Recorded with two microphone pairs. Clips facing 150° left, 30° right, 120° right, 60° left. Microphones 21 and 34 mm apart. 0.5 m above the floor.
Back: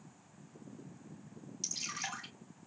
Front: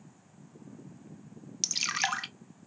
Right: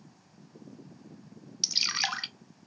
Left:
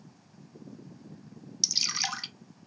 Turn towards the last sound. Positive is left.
turn(degrees=-65)